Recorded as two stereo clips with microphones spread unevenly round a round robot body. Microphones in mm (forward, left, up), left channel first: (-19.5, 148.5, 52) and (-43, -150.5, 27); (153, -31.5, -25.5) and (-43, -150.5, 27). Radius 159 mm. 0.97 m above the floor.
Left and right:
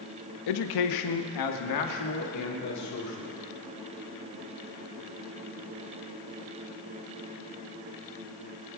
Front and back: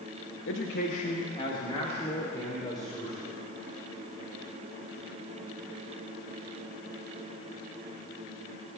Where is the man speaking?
75° left, 0.7 m; by 3.3 s 120° left, 2.5 m.